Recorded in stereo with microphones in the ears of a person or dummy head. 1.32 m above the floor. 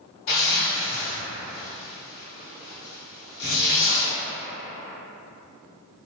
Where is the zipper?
55° left (ahead or behind), 1.1 m.